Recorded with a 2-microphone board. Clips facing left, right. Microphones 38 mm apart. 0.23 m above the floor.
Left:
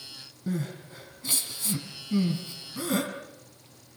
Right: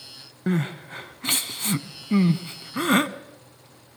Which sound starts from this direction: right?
Crying, at 0.5 s.